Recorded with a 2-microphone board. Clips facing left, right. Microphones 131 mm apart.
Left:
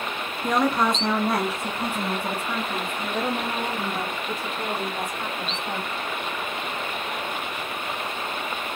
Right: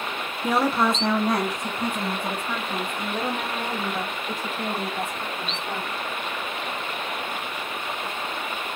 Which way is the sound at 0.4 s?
10° right (ahead or behind).